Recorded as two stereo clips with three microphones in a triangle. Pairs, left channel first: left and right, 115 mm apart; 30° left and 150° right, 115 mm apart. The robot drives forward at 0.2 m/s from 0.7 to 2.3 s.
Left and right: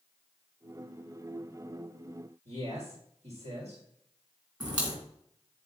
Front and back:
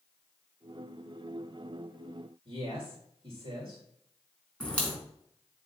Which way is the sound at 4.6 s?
45° right.